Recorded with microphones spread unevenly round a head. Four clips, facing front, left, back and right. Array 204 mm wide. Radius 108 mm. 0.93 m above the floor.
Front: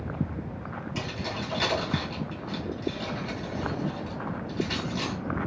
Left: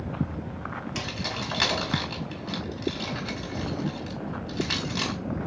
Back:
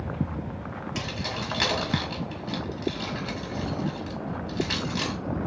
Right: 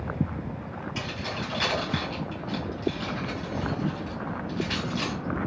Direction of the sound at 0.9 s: 140° left.